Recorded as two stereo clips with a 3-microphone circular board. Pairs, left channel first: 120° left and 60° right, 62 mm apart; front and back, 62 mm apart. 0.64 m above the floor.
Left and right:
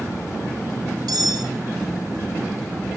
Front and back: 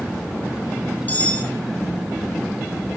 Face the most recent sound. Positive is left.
turn(degrees=-65)